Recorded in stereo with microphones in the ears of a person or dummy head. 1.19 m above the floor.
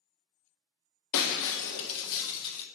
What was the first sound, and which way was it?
Breaking glass, 75° left (ahead or behind).